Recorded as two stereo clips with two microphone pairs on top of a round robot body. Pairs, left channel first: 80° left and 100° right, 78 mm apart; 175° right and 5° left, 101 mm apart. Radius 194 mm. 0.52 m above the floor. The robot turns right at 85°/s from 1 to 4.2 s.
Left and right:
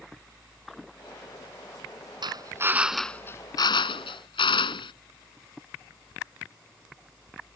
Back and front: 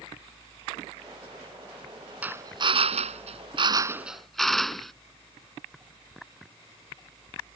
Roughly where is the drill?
Right.